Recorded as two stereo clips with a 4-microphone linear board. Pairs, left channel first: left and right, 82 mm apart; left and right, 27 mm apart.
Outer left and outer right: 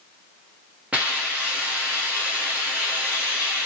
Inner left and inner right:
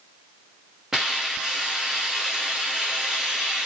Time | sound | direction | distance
0.9 | a hiss | 15° right (ahead or behind) | 0.9 m